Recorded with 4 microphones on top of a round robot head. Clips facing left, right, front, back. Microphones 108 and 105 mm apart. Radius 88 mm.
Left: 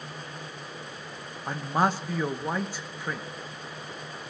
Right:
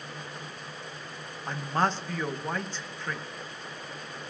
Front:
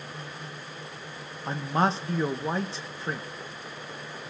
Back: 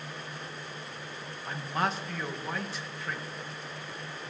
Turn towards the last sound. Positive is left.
turn(degrees=25)